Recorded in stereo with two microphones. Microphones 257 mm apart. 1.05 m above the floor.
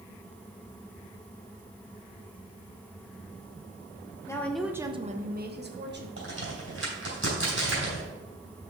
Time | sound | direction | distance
4.3 | a woman speaking | 10° left (ahead or behind) | 0.9 m
6.2 | a crack | 60° right (ahead or behind) | 3 m